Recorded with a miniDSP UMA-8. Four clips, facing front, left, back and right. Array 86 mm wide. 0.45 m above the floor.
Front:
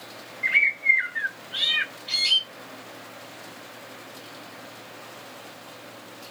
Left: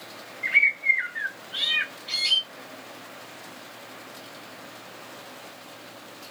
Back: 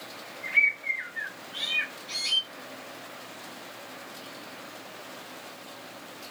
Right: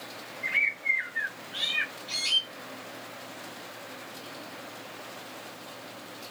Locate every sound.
0.4 s a bird: 25° left, 1.4 m